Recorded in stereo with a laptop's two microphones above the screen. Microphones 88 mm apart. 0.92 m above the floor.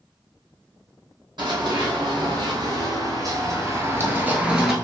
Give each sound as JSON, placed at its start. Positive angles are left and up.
{"t": 1.4, "sound": "running footsteps", "side_deg": -60, "distance_m": 2.0}